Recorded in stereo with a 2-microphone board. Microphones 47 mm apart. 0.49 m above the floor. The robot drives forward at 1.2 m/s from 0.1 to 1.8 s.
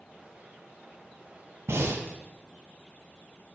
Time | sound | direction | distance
1.7 | breathing | 80° right | 1.3 m